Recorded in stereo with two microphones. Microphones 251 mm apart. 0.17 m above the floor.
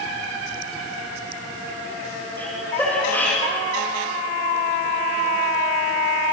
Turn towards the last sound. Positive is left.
turn(degrees=5)  # may be behind; listen again after turning